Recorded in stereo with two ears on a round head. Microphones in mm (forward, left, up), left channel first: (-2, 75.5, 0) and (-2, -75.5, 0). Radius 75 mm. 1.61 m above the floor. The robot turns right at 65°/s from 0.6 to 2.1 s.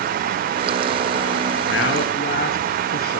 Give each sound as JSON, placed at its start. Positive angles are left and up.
{"t": 1.7, "sound": "a man speaking", "side_deg": 90, "distance_m": 3.0}